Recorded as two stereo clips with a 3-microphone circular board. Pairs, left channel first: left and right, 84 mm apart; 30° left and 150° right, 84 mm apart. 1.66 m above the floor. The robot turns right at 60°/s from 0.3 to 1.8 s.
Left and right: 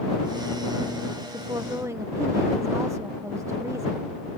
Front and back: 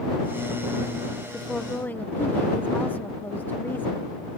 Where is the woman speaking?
65° right; by 4.1 s 40° right.